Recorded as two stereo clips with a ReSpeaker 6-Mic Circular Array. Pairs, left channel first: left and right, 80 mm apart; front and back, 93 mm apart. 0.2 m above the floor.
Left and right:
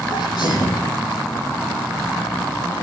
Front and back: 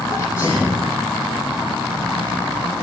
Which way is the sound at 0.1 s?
60° left.